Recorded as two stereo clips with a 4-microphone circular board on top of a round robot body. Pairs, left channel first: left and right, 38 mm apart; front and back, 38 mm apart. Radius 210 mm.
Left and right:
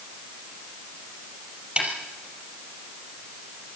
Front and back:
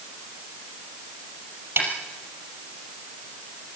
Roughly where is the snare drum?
Behind right.